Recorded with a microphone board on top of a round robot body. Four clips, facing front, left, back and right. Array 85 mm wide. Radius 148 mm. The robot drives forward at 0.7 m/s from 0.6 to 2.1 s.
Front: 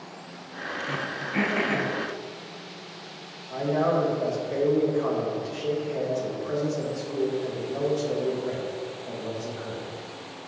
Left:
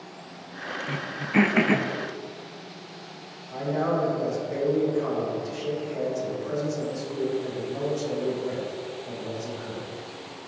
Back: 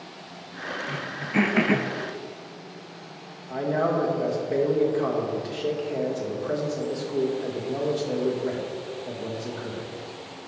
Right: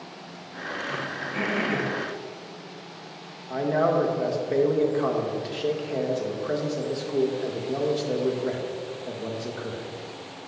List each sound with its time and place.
0.9 s throat clearing: 75° left, 0.6 m; by 1.9 s 135° left, 0.8 m
3.5 s a man speaking: 115° right, 1.9 m